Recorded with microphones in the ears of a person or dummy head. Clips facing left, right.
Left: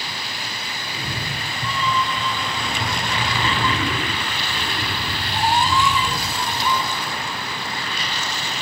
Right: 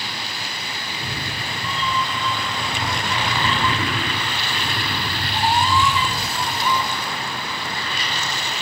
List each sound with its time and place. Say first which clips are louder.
0.8 s a cat meowing: left 1 dB; 55° left (ahead or behind), 5 m; by 6.8 s centre (ahead or behind), 5.5 m